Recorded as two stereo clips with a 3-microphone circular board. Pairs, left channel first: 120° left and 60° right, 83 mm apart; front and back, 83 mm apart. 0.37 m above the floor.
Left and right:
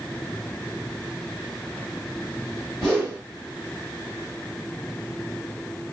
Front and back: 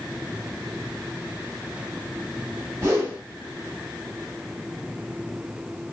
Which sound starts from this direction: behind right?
A whoosh, at 2.8 s.